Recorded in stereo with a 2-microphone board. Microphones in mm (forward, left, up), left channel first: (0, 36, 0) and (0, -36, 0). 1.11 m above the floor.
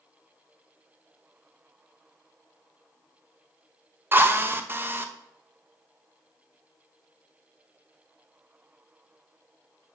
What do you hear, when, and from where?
4.1 s a drill: 30° right (ahead or behind), 0.9 m